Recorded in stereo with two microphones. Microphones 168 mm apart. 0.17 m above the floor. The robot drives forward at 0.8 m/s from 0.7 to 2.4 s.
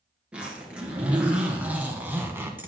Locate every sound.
0.3 s a zipper: 5° right (ahead or behind), 2 m; by 2.7 s 15° right (ahead or behind), 1.1 m